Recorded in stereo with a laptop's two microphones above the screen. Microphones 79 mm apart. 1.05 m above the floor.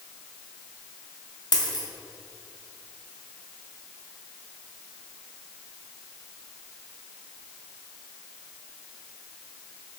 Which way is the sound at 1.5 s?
65° left (ahead or behind).